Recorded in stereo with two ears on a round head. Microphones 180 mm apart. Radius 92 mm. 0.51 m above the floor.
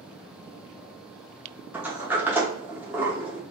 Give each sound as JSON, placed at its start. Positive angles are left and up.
{"t": 1.7, "sound": "a sliding door", "side_deg": -10, "distance_m": 0.8}